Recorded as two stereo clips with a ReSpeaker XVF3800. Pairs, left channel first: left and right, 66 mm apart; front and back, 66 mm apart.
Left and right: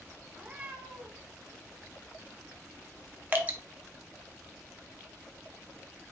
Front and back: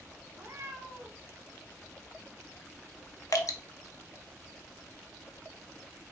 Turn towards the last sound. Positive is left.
turn(degrees=-30)